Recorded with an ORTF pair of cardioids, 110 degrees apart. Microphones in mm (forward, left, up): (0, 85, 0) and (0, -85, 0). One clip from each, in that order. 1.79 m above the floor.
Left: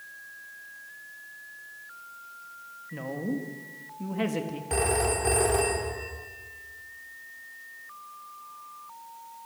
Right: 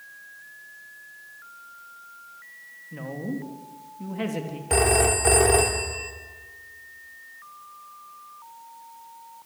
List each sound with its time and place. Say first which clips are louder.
2.9 s a woman speaking: left 1 dB; 5° left, 3.5 m
4.7 s a phone ringing: right 6 dB; 40° right, 3 m